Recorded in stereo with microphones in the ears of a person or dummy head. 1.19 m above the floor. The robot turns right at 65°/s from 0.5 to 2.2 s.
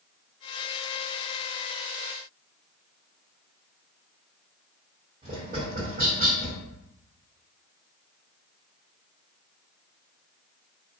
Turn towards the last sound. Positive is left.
turn(degrees=-40)  # may be behind; listen again after turning